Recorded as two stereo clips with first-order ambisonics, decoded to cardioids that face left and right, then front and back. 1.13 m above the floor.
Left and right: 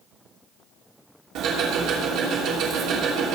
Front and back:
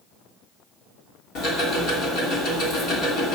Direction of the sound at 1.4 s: 50° right.